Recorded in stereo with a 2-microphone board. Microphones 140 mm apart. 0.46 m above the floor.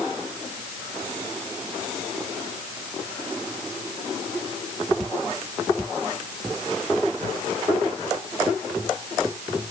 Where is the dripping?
I don't hear dripping.